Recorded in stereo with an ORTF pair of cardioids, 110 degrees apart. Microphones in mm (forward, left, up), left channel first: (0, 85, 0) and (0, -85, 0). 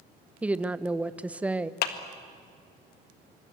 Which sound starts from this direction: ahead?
A woman speaking, at 0.4 s.